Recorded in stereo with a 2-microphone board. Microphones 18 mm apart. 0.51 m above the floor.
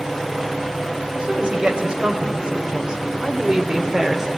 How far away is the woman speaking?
About 3 m.